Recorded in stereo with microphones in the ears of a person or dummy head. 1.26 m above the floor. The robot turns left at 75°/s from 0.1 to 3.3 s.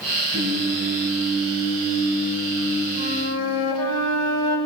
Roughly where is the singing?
Ahead right.